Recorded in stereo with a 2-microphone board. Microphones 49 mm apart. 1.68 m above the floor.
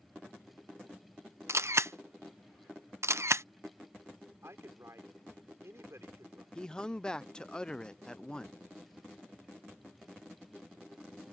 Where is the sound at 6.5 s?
15° left (ahead or behind).